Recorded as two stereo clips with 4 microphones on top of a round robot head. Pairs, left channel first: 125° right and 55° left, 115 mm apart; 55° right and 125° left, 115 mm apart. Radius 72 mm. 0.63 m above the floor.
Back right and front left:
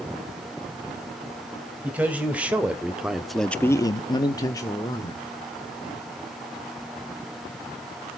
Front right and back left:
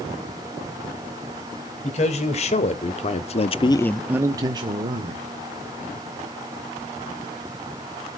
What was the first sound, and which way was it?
A man speaking, 25° right.